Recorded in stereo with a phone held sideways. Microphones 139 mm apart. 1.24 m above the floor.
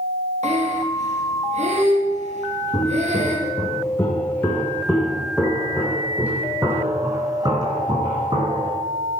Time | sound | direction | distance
0.4 | breathing | 55° right (ahead or behind) | 1.8 m
2.7 | footsteps | 30° left (ahead or behind) | 3 m